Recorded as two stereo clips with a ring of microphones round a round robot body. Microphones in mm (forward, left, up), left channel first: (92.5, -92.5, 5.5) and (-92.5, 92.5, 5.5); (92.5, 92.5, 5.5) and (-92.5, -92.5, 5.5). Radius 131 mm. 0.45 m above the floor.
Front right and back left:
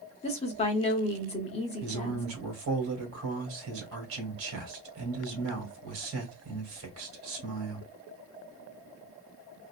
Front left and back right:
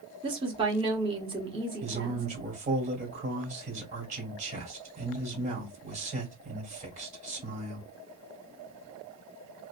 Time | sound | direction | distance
0.2 | a woman speaking | 85° right | 1.0 m
1.8 | a man speaking | 165° left | 1.6 m